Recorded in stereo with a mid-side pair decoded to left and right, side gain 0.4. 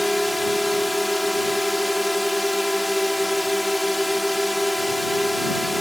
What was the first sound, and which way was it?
A drone, 5° left.